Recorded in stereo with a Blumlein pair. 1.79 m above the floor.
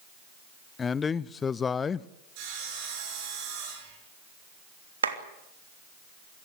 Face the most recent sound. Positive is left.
turn(degrees=-70)